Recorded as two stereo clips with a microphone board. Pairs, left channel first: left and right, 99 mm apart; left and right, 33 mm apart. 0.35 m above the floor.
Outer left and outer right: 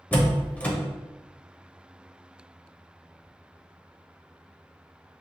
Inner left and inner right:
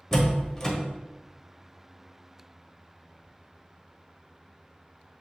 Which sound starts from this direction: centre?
A door slam, at 0.1 s.